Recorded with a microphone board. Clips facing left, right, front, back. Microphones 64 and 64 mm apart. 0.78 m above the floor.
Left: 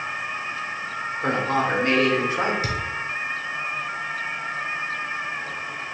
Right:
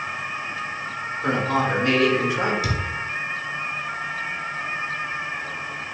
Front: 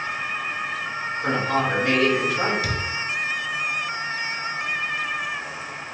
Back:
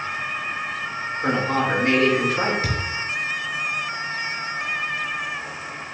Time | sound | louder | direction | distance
1.2 | a man speaking | right 1 dB, back 1 dB | 135° left | 2 m
2.6 | a thud | right 1 dB, back 1 dB | 135° left | 1.0 m